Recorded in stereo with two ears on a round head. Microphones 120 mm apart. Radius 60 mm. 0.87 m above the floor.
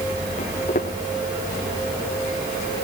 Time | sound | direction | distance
0.4 | footsteps | 60° left (ahead or behind) | 4.5 m